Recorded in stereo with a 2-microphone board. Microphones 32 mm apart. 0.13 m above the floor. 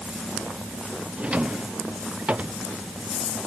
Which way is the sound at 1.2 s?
45° right (ahead or behind).